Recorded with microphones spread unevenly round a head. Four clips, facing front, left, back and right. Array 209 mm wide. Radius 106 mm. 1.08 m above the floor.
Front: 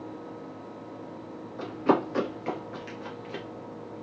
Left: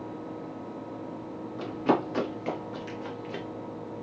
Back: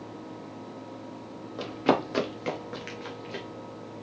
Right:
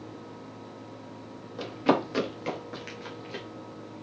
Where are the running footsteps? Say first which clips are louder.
Right 1 dB, front 1 dB; 130° right, 1.6 m; by 3.5 s 60° left, 1.2 m.